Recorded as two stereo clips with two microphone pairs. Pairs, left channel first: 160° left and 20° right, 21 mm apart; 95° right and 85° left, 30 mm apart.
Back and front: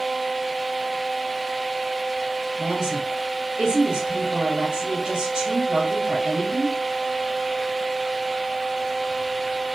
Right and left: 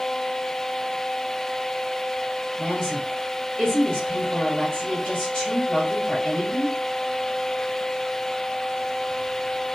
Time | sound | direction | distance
2.6 | a woman speaking | 25° right | 1.7 m